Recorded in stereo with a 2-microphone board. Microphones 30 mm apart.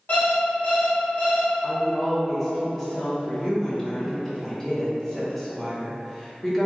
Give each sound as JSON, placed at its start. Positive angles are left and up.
{"t": 0.1, "sound": "an alarm clock", "side_deg": 60, "distance_m": 1.7}
{"t": 1.6, "sound": "a woman speaking", "side_deg": 5, "distance_m": 0.8}